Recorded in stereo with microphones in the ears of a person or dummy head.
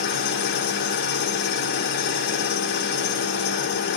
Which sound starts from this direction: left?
An engine running, at 0.0 s.